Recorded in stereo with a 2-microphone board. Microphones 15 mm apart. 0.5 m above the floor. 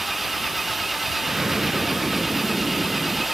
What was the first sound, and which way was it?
An engine running, 5° right (ahead or behind).